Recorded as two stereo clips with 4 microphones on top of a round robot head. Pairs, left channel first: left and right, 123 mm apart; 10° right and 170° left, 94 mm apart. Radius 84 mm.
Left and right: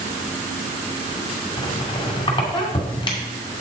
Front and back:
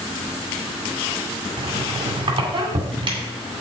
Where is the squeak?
140° left, 2 m.